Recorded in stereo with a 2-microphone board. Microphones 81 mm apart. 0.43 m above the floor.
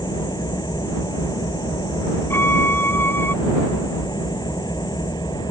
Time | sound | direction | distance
0.0 | an engine running | 55° left (ahead or behind) | ?
2.3 | a violin | 25° left (ahead or behind) | ?